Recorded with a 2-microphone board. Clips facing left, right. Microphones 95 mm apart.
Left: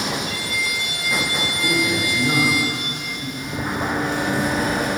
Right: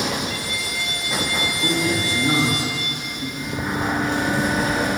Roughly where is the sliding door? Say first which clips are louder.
Even; centre.